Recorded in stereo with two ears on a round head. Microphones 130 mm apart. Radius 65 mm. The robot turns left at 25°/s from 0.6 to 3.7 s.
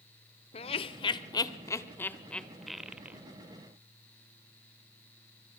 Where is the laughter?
40° left (ahead or behind), 1.3 m; by 3.2 s 10° right (ahead or behind), 1.3 m.